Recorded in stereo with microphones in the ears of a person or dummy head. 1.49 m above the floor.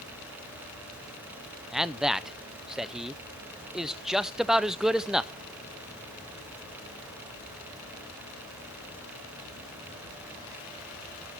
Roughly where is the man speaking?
Centre.